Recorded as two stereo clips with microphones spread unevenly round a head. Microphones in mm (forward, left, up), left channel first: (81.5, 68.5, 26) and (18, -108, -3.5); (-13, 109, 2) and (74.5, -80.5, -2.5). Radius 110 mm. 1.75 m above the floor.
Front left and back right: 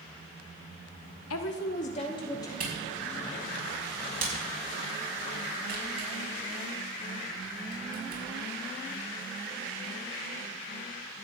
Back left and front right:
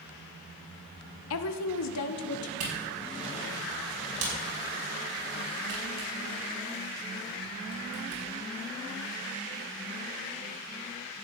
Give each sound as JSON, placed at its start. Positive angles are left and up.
{"t": 1.3, "sound": "a woman speaking", "azimuth_deg": 95, "distance_m": 0.7}
{"t": 2.6, "sound": "a camera shutter", "azimuth_deg": -70, "distance_m": 5.5}